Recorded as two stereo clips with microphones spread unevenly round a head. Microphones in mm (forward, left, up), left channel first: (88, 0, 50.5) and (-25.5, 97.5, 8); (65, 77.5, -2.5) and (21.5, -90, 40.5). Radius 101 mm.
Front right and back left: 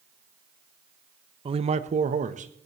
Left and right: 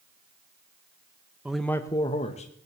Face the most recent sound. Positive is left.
turn(degrees=120)